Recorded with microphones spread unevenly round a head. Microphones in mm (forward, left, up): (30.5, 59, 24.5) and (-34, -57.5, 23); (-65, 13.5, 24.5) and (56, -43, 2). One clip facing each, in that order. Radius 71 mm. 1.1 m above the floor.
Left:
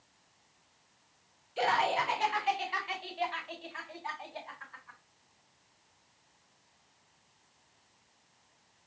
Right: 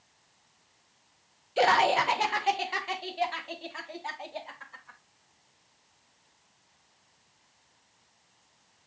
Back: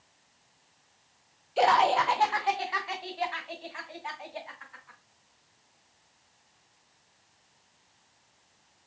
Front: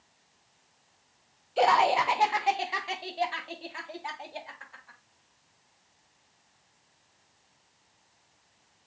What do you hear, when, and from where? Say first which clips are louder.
1.6 s laughter: right 6 dB, even; 115° right, 0.7 m; by 5.0 s 70° right, 2.5 m